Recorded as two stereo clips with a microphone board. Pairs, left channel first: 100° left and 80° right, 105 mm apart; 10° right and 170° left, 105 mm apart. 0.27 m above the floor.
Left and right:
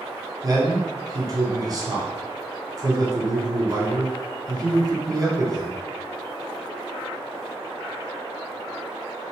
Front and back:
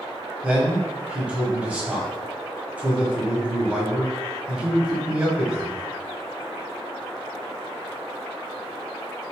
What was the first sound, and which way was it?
A man speaking, 115° right.